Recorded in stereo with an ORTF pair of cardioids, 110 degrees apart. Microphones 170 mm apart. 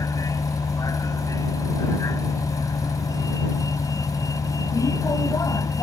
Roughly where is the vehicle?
Ahead.